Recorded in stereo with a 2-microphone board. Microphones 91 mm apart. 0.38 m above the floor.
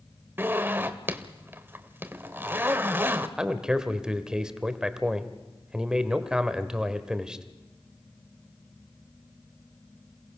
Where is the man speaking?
10° right (ahead or behind), 1.3 m.